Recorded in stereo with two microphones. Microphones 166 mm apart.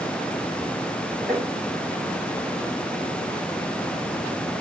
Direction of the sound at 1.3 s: Centre (ahead or behind).